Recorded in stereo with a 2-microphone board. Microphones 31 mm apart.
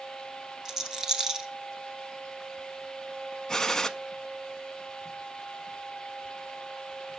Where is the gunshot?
15° left (ahead or behind), 0.6 m.